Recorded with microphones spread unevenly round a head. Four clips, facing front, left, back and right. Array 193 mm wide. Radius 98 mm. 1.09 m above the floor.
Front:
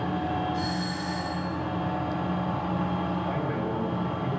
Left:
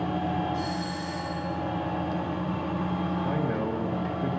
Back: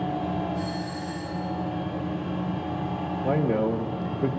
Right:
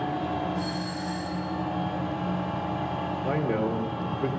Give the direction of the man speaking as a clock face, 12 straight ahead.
5 o'clock.